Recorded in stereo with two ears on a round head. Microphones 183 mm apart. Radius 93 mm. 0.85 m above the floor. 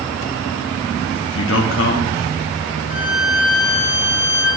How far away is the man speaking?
About 1.2 m.